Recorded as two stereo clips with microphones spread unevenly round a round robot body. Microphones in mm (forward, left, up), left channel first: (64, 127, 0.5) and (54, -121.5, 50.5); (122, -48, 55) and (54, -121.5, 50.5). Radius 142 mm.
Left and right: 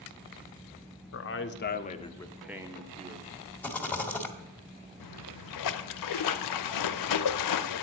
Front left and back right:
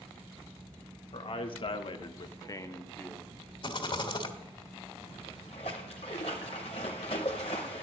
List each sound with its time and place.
1.1 s a man speaking: 80° left, 1.3 m; by 3.4 s 35° right, 1.3 m
3.6 s a rattle: 5° left, 1.5 m
5.0 s a splash: 115° left, 0.5 m